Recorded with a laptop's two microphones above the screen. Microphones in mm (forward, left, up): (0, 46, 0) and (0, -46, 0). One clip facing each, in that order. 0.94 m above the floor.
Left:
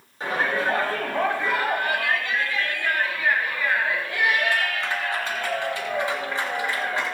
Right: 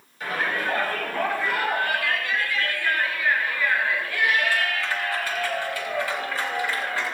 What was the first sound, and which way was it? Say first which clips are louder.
A shout: left 3 dB; 30° left (ahead or behind).